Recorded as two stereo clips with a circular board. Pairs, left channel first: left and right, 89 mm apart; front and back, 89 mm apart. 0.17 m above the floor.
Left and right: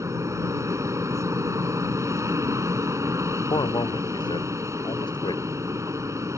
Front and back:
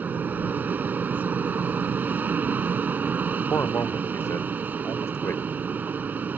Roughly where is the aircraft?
Behind right.